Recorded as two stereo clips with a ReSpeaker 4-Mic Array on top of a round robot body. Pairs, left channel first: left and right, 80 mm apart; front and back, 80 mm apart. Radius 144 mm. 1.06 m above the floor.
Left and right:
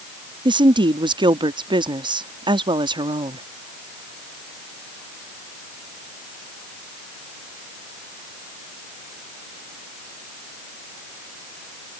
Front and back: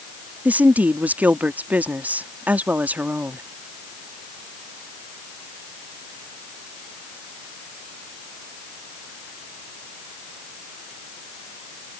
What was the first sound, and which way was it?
A woman speaking, 110° right.